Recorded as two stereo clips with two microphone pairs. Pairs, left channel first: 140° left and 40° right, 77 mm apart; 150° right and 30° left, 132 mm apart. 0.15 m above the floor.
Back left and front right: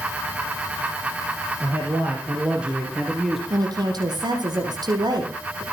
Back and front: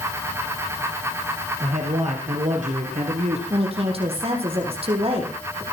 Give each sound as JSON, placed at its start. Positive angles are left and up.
{"t": 1.6, "sound": "a man speaking", "azimuth_deg": 25, "distance_m": 4.5}
{"t": 3.5, "sound": "a woman speaking", "azimuth_deg": -10, "distance_m": 6.0}